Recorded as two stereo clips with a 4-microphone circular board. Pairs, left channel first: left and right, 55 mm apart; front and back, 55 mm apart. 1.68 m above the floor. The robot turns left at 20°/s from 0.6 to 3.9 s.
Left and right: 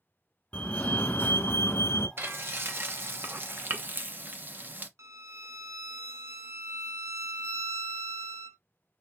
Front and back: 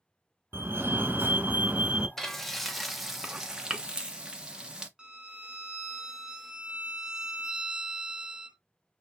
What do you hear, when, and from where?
0.5 s a fire alarm: 145° left, 1.4 m; by 2.1 s 115° left, 1.4 m
2.2 s frying: 80° right, 0.9 m; by 4.9 s 115° right, 0.9 m
5.0 s a violin: 110° right, 0.8 m